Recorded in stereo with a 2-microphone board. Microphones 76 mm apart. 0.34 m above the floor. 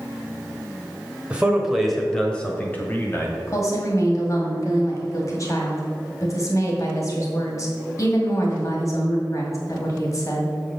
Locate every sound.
1.3 s a man speaking: 15° right (ahead or behind), 1.3 m; by 3.4 s 35° left (ahead or behind), 1.9 m
3.5 s a woman speaking: 45° left (ahead or behind), 2 m